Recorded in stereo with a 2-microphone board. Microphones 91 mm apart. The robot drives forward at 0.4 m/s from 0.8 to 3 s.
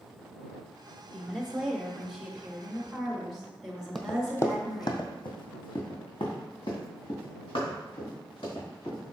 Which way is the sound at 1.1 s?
5° right (ahead or behind).